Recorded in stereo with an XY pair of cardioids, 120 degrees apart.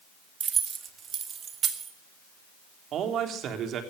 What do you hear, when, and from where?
0.4 s keys jangling: 40° right, 1.6 m; by 1.9 s 50° right, 3 m
2.9 s a man speaking: 60° right, 3.5 m